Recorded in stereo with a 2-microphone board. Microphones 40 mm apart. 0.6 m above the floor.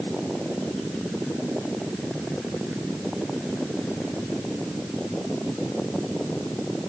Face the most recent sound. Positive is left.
No sound to turn to.